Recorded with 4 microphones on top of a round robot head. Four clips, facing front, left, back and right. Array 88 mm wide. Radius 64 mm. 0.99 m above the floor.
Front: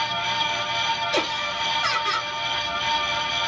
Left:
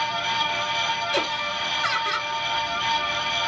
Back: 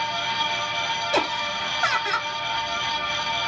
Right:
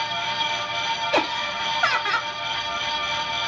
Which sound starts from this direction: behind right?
Laughter, at 1.1 s.